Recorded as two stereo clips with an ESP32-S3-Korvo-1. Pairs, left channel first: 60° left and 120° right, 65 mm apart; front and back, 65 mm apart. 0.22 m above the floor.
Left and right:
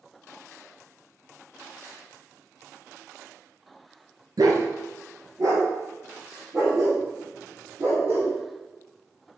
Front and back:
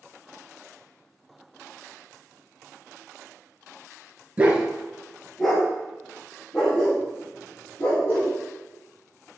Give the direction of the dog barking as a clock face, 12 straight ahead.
4 o'clock.